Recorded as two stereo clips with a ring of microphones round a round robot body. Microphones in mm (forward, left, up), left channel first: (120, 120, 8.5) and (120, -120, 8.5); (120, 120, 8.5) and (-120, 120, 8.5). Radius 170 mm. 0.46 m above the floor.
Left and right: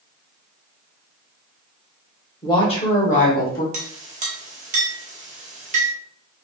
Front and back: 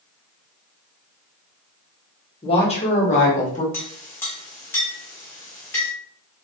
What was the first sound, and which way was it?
A woman speaking, 35° left.